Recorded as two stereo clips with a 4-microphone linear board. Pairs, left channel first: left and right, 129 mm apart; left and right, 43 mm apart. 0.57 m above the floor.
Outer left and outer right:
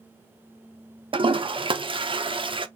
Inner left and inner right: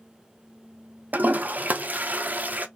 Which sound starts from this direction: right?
A toilet flushing, at 1.1 s.